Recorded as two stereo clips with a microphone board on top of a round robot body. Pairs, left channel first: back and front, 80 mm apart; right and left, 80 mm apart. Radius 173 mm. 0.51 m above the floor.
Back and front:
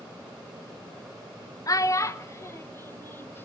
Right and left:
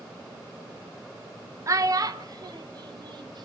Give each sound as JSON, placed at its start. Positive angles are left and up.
{"t": 1.7, "sound": "a child speaking", "azimuth_deg": 135, "distance_m": 1.7}